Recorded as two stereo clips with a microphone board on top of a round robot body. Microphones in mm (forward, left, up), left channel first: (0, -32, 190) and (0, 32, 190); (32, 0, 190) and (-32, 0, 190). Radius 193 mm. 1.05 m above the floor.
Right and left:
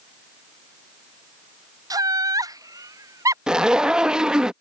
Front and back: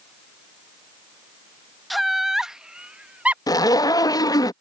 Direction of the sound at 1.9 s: 90° left.